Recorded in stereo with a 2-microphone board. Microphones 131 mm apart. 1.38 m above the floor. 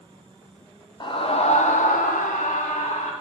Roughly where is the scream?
Left.